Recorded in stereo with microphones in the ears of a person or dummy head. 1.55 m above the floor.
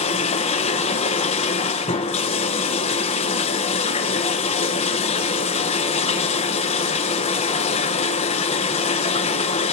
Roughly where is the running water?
Left.